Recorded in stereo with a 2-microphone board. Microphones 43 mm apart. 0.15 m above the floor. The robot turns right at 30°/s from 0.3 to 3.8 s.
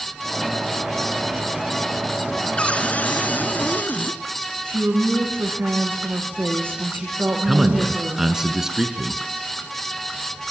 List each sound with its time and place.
2.6 s a cupboard door: 40° left, 1.4 m; by 4.2 s 75° left, 1.4 m
4.7 s a woman speaking: 55° right (ahead or behind), 9 m
7.5 s a man speaking: 10° right (ahead or behind), 1.9 m